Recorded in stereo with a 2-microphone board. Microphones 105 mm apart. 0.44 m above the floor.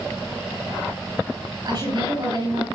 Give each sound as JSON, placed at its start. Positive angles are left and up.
{"t": 1.6, "sound": "a woman speaking", "side_deg": -45, "distance_m": 9.5}